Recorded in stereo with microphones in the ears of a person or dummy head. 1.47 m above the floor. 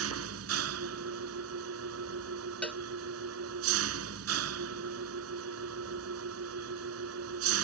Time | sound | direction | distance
0.0 | an engine running | 85° right | ?
2.6 | a cowbell | 5° left (ahead or behind) | ?